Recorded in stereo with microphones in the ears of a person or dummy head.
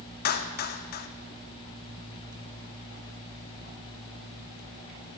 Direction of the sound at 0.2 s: 55° left (ahead or behind).